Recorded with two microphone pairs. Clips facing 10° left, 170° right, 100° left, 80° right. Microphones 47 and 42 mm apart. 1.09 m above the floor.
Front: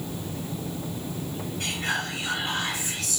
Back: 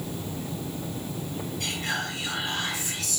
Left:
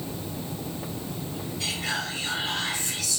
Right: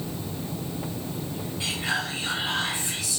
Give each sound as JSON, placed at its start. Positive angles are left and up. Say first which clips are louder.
{"t": 1.6, "sound": "whispering", "louder": "front 2 dB, right 2 dB", "azimuth_deg": -15, "distance_m": 1.3}